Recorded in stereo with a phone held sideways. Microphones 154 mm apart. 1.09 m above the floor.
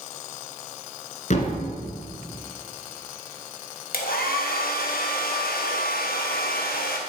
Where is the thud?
50° left (ahead or behind), 1.8 m.